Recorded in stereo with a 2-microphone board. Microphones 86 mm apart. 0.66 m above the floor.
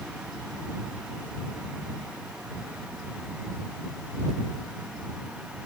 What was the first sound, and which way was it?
Only background noise.